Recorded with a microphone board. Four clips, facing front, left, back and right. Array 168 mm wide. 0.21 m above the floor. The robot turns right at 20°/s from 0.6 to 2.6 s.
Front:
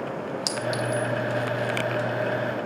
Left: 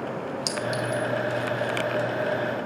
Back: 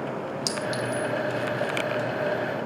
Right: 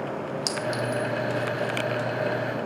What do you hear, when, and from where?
0.5 s a clink: 5° right, 0.6 m; by 1.1 s 5° left, 0.6 m